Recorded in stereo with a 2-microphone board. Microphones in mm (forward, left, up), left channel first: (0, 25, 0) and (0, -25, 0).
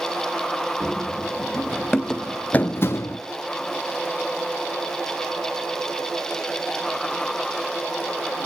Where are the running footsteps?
10° right (ahead or behind), 1.7 m; by 3.2 s 70° left (ahead or behind), 0.7 m.